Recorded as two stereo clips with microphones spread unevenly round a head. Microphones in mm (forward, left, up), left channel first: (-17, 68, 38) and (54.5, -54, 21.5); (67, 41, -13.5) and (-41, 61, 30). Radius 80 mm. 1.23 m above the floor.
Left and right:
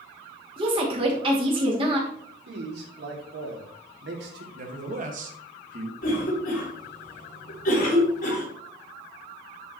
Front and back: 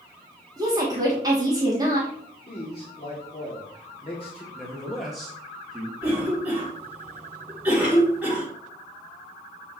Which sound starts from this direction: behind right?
A woman speaking, at 0.6 s.